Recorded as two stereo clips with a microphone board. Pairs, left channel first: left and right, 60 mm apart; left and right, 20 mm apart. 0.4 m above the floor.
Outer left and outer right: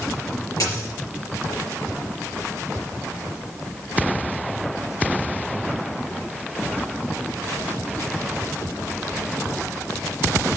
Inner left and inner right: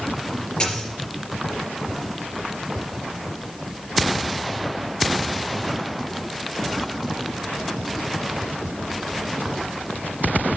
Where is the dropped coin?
75° left (ahead or behind), 4 m.